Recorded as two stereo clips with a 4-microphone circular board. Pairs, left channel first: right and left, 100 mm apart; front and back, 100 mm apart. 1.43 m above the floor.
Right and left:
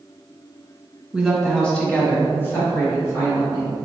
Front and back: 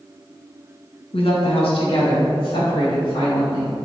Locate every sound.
1.1 s a woman speaking: 5° left, 1.7 m; by 3.8 s 35° right, 4.5 m